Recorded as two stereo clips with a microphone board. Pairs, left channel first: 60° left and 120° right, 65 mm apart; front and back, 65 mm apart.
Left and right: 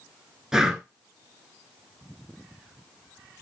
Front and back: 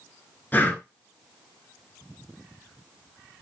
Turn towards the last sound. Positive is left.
turn(degrees=-45)